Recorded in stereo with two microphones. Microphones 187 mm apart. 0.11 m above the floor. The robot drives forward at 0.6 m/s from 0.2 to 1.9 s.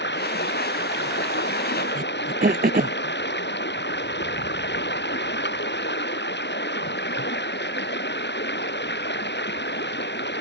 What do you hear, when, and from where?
0.0 s running water: 70° left (ahead or behind)
1.9 s throat clearing: 55° right (ahead or behind)